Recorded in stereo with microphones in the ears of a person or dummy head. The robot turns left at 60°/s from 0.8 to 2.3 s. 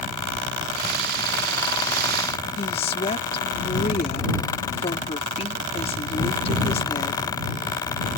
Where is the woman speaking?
40° left (ahead or behind).